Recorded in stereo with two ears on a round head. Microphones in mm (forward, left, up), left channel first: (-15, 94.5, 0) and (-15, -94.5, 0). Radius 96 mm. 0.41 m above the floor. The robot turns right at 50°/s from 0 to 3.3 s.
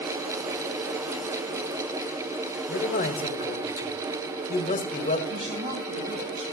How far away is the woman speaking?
About 3.5 m.